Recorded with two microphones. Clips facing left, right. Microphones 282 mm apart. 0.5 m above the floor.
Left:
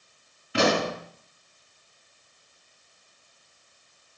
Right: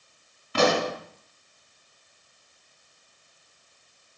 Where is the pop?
10° left (ahead or behind), 2.5 m.